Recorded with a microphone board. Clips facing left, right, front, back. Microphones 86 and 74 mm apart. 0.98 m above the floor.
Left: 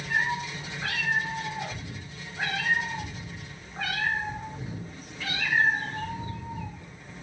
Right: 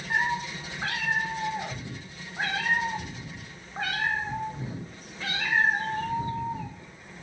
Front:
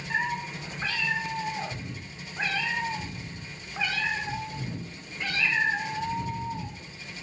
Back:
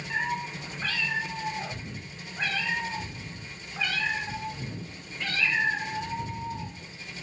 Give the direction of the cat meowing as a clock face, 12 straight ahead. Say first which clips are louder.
Right 1 dB, front 1 dB; 2 o'clock.